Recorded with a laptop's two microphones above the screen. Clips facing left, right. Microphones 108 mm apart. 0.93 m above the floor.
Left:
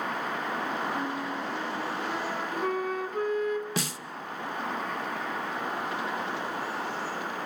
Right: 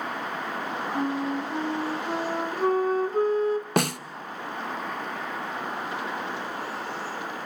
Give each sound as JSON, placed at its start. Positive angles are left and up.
{"t": 0.9, "sound": "a flute", "side_deg": -35, "distance_m": 1.4}
{"t": 3.8, "sound": "a snare drum", "side_deg": -60, "distance_m": 0.7}